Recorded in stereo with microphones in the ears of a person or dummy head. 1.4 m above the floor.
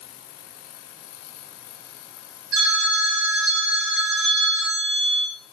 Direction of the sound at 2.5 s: 60° right (ahead or behind).